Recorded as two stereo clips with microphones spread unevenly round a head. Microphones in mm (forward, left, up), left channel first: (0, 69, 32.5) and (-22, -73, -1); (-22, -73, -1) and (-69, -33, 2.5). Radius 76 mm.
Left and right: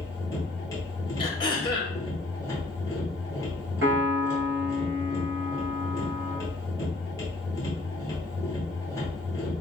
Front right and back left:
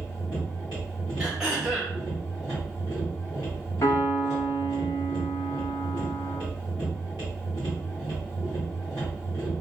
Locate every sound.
0.0 s a machine running: 10° left, 1.3 m
1.2 s throat clearing: 60° left, 0.8 m
3.8 s a piano: 75° right, 0.9 m